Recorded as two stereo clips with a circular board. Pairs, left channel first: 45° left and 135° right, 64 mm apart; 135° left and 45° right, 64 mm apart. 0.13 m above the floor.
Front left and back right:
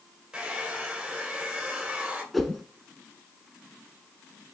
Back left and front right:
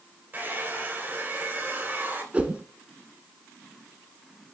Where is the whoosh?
40° right, 0.8 m.